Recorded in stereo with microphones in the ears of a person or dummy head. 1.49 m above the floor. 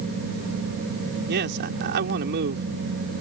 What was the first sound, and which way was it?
A man speaking, 70° right (ahead or behind).